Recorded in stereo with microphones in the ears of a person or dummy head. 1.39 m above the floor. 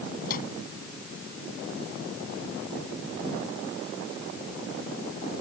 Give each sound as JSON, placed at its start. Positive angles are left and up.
{"t": 0.2, "sound": "a microwave", "side_deg": 55}